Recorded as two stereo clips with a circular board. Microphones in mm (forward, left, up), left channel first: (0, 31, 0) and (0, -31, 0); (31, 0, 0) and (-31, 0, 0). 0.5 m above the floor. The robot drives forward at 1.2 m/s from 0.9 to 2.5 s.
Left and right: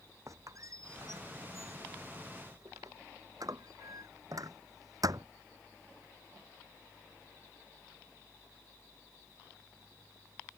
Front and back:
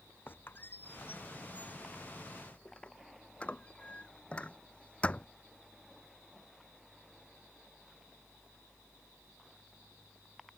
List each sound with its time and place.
0.3 s a squeak: 55° right; by 5.3 s 70° right